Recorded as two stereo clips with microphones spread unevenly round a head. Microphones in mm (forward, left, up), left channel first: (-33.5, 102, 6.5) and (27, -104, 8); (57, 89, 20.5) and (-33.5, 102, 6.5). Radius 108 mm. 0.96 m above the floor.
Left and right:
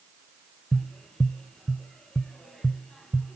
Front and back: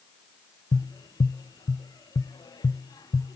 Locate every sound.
0.7 s tapping: 20° left, 0.9 m